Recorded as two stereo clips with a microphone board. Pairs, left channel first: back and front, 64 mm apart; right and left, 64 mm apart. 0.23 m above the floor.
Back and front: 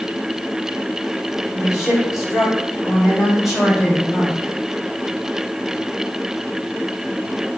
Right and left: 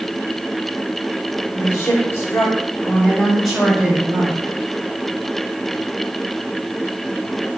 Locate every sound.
1.5 s a woman speaking: 80° right, 2.5 m; by 4.6 s 95° left, 1.7 m